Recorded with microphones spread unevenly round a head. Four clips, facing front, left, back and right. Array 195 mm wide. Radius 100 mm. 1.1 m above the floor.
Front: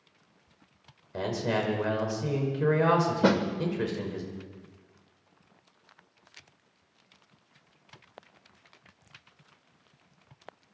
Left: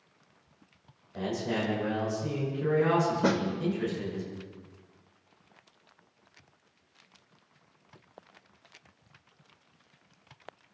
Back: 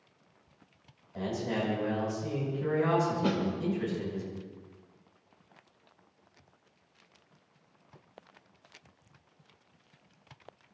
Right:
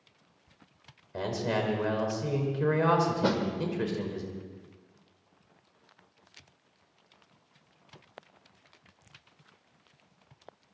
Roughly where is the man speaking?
Ahead right.